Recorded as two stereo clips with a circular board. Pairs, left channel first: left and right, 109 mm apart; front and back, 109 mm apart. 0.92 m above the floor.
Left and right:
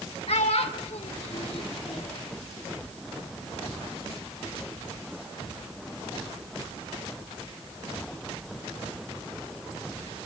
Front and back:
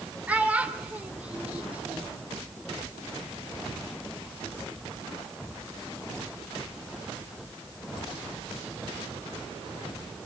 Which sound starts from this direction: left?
A child speaking, at 0.3 s.